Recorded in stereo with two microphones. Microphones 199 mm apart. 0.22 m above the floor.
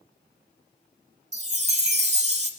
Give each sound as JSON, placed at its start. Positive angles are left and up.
{"t": 1.3, "sound": "a chime", "side_deg": -35, "distance_m": 0.8}